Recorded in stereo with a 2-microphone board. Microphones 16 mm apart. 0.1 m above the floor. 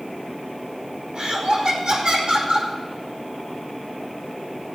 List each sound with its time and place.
1.1 s laughter: 70° right (ahead or behind), 4.5 m